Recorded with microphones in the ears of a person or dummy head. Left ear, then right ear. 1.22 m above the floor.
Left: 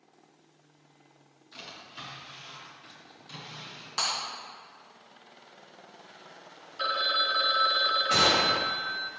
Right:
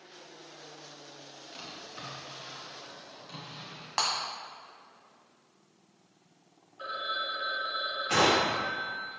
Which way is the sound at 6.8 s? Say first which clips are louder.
Left 7 dB; 70° left (ahead or behind).